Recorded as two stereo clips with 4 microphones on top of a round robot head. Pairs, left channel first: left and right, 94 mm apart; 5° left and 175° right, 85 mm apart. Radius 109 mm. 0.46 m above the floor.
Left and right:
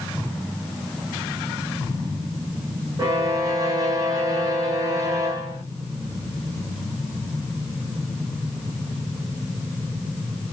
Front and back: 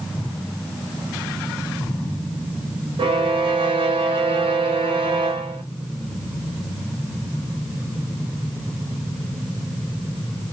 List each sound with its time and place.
3.0 s a violin: 145° right, 0.6 m